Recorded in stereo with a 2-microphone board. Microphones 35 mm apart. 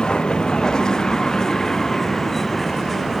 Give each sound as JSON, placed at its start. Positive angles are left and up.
{"t": 0.0, "sound": "a vehicle", "side_deg": 25}